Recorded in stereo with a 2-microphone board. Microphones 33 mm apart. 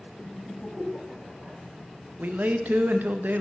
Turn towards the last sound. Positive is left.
turn(degrees=-70)  # may be behind; listen again after turning